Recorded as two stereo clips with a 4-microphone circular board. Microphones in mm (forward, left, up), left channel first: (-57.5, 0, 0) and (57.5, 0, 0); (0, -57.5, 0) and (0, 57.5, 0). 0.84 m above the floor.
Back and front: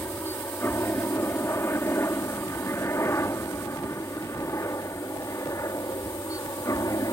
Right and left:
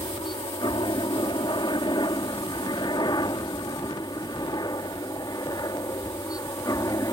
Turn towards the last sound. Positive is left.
turn(degrees=-135)